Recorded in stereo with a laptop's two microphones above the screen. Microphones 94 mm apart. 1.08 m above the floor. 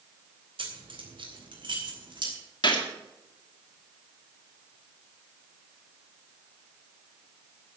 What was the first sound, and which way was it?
Keys jangling, 65° right (ahead or behind).